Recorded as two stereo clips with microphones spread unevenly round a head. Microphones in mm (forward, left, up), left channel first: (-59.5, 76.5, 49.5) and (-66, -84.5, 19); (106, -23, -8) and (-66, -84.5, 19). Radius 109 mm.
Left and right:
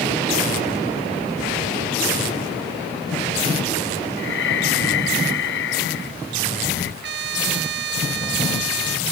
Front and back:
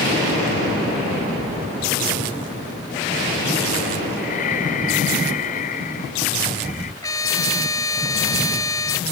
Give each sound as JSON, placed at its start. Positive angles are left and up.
{"t": 4.2, "sound": "breathing", "azimuth_deg": 80}
{"t": 7.0, "sound": "a trumpet", "azimuth_deg": -55}